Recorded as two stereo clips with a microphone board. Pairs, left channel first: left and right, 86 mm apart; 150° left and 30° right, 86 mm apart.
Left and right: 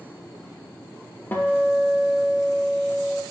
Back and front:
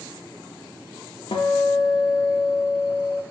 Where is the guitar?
155° left, 0.5 m.